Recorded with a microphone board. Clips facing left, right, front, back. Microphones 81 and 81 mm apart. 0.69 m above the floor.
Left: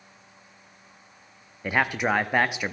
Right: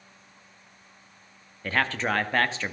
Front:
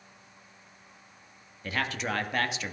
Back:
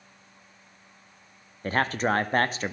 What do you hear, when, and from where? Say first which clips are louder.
1.6 s a man speaking: left 2 dB, back 7 dB; 160° left, 0.6 m